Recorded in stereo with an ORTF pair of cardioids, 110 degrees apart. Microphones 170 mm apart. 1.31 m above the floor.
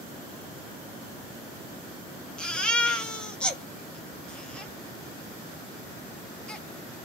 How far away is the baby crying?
About 0.8 m.